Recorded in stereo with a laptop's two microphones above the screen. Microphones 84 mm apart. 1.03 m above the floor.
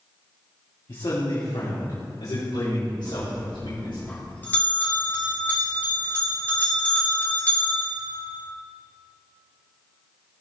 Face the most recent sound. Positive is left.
turn(degrees=20)  # may be behind; listen again after turning